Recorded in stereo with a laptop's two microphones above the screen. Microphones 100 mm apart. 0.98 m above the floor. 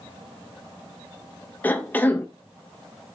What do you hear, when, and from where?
1.6 s a cough: 20° left (ahead or behind), 0.6 m